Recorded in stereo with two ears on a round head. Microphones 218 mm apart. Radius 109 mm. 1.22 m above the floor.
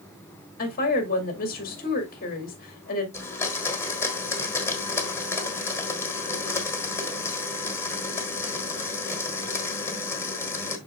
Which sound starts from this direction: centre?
A blender, at 3.1 s.